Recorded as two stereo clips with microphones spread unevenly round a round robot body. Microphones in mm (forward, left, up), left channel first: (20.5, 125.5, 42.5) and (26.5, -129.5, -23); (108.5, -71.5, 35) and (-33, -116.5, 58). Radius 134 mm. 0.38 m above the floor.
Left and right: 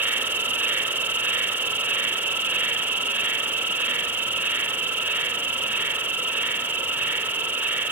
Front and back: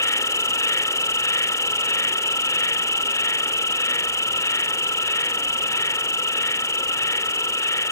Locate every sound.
0.0 s an insect: 30° right